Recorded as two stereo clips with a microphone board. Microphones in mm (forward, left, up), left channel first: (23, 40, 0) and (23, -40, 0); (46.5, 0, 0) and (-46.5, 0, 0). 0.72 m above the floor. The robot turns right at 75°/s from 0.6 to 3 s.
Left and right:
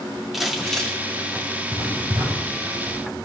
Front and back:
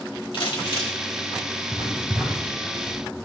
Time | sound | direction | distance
0.3 | crumpling | 5° right | 2 m
1.7 | writing | 145° right | 4 m